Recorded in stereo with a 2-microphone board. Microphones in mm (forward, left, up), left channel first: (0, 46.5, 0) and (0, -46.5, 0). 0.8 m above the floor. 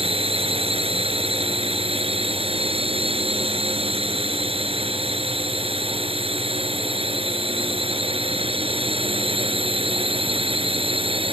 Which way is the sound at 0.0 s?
85° right.